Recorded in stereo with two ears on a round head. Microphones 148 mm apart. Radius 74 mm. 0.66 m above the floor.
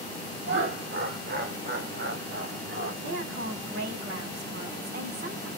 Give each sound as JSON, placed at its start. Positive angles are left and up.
{"t": 0.5, "sound": "laughter", "side_deg": -70, "distance_m": 1.6}
{"t": 3.0, "sound": "a woman speaking", "side_deg": -80, "distance_m": 3.0}